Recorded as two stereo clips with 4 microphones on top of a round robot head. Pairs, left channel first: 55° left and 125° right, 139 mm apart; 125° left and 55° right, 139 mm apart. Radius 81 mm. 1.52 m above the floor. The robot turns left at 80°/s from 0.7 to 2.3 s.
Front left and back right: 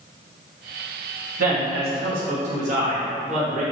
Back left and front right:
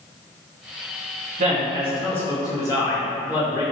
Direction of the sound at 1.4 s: 95° right.